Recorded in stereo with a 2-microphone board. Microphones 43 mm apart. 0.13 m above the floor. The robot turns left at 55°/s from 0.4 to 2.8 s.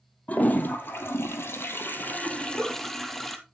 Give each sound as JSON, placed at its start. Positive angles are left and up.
{"t": 0.3, "sound": "a toilet flushing", "azimuth_deg": 140, "distance_m": 1.1}
{"t": 2.4, "sound": "a giggle", "side_deg": 40, "distance_m": 7.0}